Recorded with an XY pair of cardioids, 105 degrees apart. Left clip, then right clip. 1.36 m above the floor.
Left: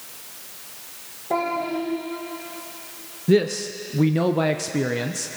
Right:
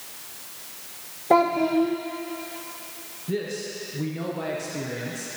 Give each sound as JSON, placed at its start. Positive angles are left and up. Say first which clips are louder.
{"t": 1.3, "sound": "a child speaking", "louder": "right 5 dB", "azimuth_deg": -55, "distance_m": 1.2}
{"t": 3.3, "sound": "a man speaking", "louder": "left 10 dB", "azimuth_deg": 70, "distance_m": 0.6}